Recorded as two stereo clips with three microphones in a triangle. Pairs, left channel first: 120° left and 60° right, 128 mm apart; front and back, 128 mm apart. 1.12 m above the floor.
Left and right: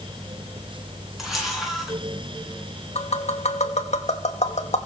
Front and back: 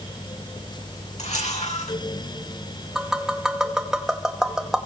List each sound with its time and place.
1.2 s a camera shutter: 30° left, 9.5 m
3.0 s tapping: 95° left, 2 m